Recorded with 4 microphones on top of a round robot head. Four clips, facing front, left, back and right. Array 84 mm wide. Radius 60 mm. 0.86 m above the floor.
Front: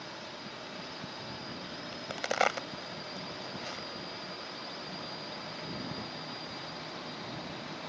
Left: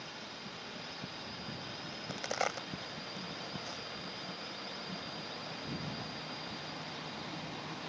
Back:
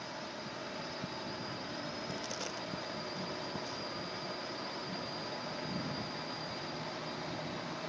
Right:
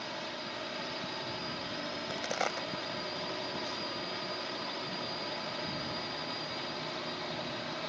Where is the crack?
Straight ahead.